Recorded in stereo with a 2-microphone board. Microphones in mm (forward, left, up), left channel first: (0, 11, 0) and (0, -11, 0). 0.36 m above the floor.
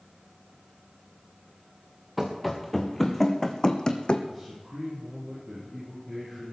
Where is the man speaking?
15° right (ahead or behind), 7 m.